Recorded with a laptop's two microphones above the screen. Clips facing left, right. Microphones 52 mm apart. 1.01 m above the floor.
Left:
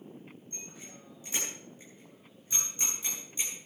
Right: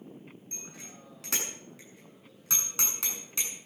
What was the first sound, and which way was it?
A bicycle bell, 75° right (ahead or behind).